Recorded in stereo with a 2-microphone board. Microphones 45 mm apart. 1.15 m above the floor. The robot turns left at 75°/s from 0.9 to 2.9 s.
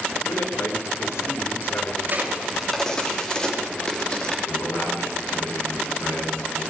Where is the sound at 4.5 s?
85° left, 9.5 m.